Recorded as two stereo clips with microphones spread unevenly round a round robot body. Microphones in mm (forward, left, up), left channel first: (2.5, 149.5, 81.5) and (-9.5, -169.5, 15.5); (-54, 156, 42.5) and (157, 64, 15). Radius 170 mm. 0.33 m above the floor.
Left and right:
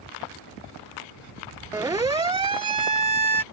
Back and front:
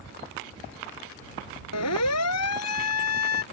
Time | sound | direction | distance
1.7 | a siren | 175° right | ?